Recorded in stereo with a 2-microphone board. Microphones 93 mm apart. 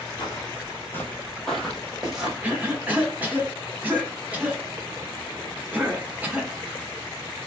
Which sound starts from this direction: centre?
A cough, at 2.4 s.